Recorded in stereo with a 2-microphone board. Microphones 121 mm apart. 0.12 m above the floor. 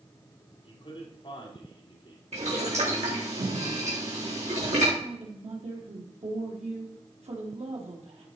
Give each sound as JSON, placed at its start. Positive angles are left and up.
{"t": 0.6, "sound": "a man speaking", "side_deg": 40, "distance_m": 4.0}
{"t": 2.3, "sound": "boiling", "side_deg": -65, "distance_m": 4.0}
{"t": 5.0, "sound": "a woman speaking", "side_deg": -60, "distance_m": 3.5}